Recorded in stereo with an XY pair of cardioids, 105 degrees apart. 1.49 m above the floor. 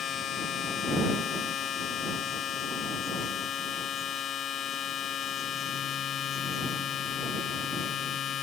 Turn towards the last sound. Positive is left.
turn(degrees=60)